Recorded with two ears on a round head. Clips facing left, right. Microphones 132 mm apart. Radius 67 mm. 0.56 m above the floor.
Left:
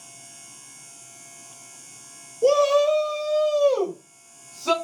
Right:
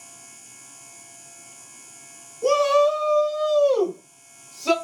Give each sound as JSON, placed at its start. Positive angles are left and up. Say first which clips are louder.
{"t": 2.4, "sound": "a shout", "louder": "left 1 dB", "side_deg": 30, "distance_m": 1.2}